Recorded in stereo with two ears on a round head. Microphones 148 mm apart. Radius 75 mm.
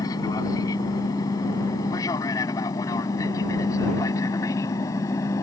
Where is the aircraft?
20° left (ahead or behind).